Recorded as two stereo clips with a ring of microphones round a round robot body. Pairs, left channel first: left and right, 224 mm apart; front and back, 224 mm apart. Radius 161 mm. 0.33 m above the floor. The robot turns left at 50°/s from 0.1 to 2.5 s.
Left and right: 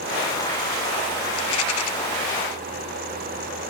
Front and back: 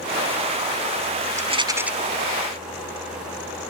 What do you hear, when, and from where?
1.4 s a rattle: 120° left, 1.6 m; by 1.9 s 95° left, 1.6 m